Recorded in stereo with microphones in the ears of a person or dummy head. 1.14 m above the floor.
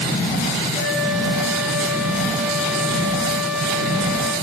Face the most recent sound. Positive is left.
turn(degrees=-10)  # may be behind; listen again after turning